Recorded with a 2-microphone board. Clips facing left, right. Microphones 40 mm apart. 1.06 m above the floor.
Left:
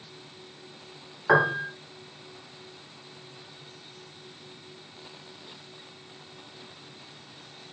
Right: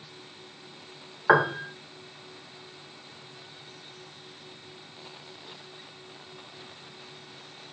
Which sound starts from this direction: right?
A piano, at 1.3 s.